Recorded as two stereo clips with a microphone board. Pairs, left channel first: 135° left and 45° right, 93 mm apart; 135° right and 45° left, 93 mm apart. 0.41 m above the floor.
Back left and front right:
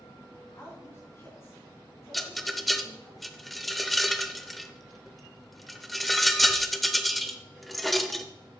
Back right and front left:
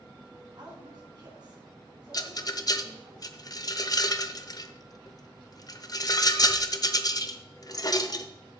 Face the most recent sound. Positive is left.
turn(degrees=-135)